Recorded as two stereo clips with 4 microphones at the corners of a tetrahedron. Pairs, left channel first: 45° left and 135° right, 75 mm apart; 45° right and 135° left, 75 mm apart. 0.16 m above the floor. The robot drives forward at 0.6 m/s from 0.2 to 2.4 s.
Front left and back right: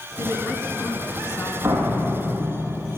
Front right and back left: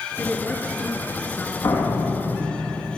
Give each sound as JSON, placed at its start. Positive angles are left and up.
{"t": 0.2, "sound": "a woman speaking", "azimuth_deg": 15, "distance_m": 2.5}
{"t": 1.6, "sound": "a door slam", "azimuth_deg": -75, "distance_m": 4.5}